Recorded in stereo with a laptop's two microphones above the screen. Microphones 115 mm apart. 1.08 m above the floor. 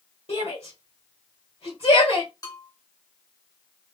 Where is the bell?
35° left (ahead or behind), 0.9 m.